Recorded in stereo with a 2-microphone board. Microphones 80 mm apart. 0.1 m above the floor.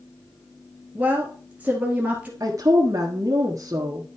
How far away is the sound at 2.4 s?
About 1.5 m.